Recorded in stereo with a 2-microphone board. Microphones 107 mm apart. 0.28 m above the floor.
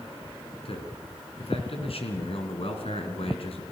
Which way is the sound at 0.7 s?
65° left (ahead or behind).